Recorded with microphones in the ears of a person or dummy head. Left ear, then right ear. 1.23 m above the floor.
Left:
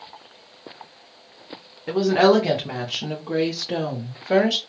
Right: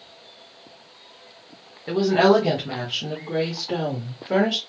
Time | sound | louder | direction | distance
1.9 | a woman speaking | even | 15° left (ahead or behind) | 1.0 m